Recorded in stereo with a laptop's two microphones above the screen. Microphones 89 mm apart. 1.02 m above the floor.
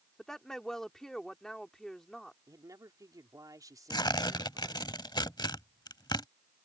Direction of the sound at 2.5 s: 40° right (ahead or behind).